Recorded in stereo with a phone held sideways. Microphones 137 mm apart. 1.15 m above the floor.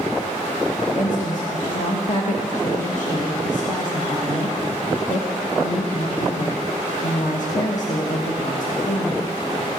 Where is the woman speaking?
70° left (ahead or behind), 1.2 m.